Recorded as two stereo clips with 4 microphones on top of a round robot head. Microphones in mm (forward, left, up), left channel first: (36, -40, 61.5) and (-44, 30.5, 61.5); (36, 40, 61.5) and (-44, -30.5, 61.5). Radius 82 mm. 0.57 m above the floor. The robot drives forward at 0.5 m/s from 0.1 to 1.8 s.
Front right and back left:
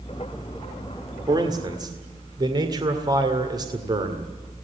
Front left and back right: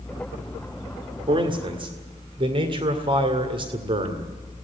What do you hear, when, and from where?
1.3 s a man speaking: 175° right, 1.9 m